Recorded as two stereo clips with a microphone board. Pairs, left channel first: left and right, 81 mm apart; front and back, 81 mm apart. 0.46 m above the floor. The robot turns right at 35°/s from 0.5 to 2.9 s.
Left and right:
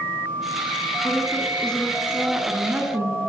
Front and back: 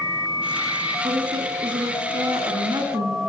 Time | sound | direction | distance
1.0 | a woman speaking | 150° left | 6 m